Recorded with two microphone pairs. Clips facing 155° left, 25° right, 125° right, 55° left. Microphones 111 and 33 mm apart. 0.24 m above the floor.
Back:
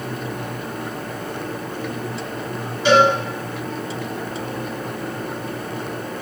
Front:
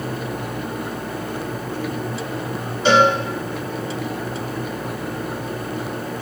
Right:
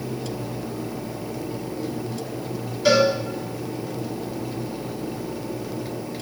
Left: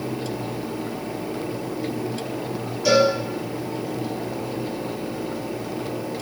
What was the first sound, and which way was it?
A cowbell, 80° right.